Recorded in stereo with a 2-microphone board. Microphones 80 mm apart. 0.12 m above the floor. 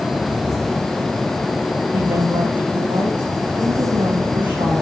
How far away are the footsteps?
No footsteps in this recording.